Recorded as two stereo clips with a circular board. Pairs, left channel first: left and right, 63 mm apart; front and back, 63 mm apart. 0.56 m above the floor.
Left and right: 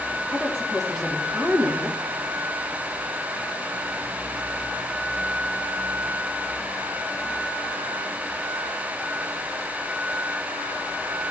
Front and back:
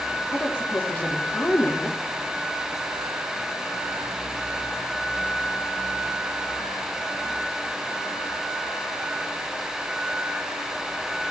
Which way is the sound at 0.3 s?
Straight ahead.